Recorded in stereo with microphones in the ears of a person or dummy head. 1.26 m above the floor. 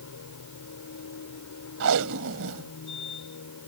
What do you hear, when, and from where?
0.0 s a machine running: 85° left
1.8 s tape being pulled: 70° right (ahead or behind)